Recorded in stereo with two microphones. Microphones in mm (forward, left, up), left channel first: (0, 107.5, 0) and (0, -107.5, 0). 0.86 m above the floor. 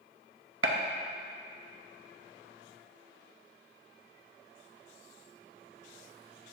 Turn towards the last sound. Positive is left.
turn(degrees=-70)  # may be behind; listen again after turning